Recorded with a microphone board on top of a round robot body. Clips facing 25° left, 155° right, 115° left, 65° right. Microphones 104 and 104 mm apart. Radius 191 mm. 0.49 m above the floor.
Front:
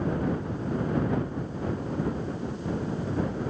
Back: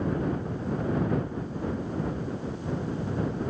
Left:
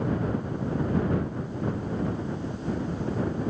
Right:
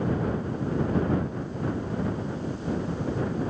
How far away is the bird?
No bird in this recording.